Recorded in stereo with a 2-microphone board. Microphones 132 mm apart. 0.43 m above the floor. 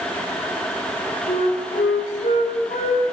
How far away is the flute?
About 5.5 m.